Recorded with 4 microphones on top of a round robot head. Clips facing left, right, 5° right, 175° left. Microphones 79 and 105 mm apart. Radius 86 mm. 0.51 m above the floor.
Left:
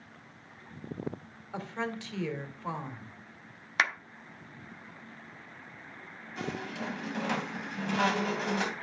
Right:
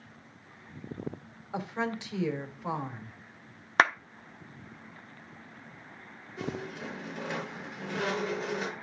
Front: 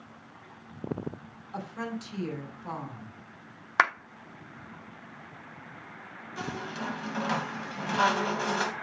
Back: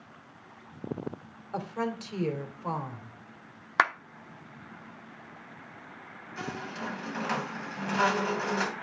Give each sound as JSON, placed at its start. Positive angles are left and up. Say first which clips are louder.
{"t": 1.5, "sound": "a woman speaking", "louder": "right 3 dB, back 4 dB", "azimuth_deg": -160, "distance_m": 2.0}
{"t": 3.8, "sound": "a clap", "louder": "right 6 dB, front 1 dB", "azimuth_deg": -95, "distance_m": 0.9}
{"t": 6.4, "sound": "a squeak", "louder": "even, front 1 dB", "azimuth_deg": 75, "distance_m": 2.0}